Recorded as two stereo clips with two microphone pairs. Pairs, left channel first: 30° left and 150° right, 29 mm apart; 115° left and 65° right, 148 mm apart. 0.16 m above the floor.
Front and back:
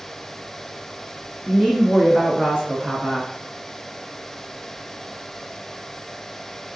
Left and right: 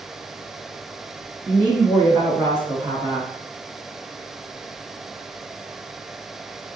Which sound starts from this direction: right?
A woman speaking, at 1.4 s.